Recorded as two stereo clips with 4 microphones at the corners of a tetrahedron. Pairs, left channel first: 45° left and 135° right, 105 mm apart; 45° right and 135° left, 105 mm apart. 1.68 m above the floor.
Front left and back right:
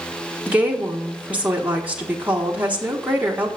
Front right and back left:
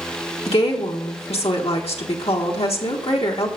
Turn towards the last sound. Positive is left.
turn(degrees=-60)